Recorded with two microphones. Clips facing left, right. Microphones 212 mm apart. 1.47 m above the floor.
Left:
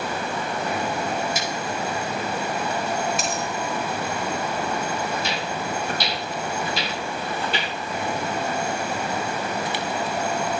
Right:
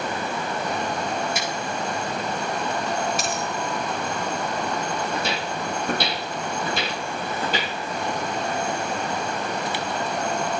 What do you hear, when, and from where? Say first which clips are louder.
1.4 s scissors: even; 60° right (ahead or behind), 5 m
3.2 s a dropped coin: even; 5° right (ahead or behind), 3 m
5.1 s footsteps: even; 60° right (ahead or behind), 3.5 m; by 7.7 s 40° right (ahead or behind), 2.5 m